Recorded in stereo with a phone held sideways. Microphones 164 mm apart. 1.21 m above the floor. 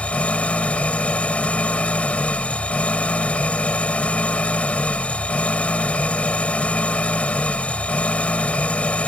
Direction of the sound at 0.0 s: 10° left (ahead or behind).